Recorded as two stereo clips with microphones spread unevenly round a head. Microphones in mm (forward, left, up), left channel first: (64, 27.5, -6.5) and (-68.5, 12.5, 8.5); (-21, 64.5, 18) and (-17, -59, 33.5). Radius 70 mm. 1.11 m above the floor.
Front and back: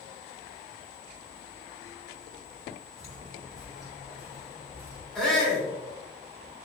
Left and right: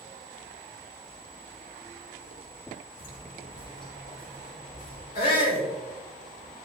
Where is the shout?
90° left, 3 m.